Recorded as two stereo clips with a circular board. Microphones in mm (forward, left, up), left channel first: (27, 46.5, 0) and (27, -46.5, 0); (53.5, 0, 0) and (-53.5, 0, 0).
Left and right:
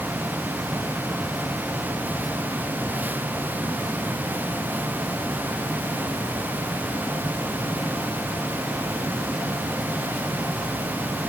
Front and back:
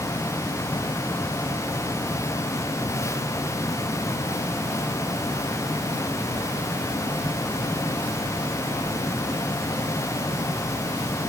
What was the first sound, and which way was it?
Only background noise.